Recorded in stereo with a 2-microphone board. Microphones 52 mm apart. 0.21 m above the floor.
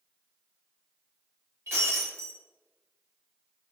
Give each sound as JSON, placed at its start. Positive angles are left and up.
{"t": 1.7, "sound": "breaking glass", "side_deg": -55, "distance_m": 4.0}